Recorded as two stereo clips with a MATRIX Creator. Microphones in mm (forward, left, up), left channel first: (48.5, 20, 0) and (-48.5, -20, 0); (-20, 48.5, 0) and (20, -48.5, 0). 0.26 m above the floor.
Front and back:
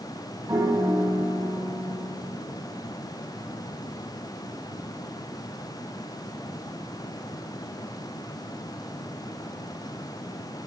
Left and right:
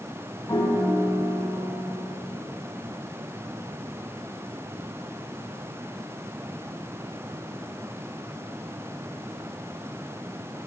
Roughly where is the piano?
Behind.